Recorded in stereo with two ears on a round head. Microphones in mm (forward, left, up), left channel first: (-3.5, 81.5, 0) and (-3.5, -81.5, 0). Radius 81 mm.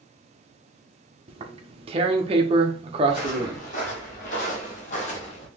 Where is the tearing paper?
30° right (ahead or behind), 0.7 m.